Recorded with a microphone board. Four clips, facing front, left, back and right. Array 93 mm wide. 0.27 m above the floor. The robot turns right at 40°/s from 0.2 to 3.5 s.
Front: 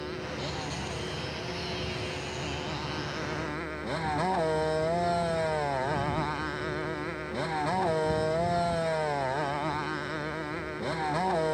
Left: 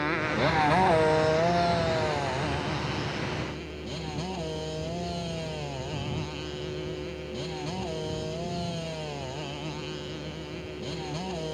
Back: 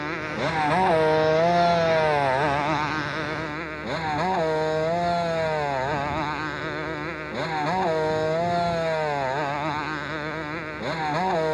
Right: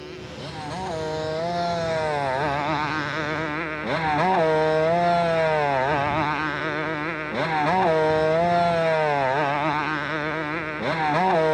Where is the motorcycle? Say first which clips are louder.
Left 9 dB, back 8 dB; 125° left; by 11.5 s 105° right.